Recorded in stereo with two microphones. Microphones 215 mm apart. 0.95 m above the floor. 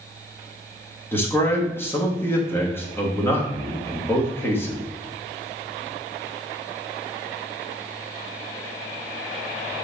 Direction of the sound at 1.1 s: 10° left (ahead or behind).